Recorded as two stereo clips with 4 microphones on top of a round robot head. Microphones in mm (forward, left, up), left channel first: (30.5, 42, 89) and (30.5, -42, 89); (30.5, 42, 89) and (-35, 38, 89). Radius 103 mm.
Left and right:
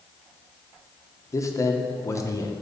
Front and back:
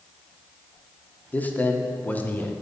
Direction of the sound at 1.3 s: 60° left.